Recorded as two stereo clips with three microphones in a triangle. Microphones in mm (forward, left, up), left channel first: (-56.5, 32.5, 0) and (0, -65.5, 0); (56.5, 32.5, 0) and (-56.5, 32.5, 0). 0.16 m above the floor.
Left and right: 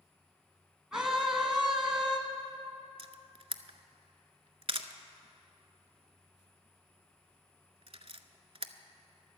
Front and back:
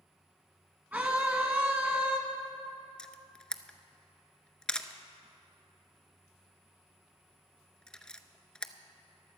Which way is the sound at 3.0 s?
80° right.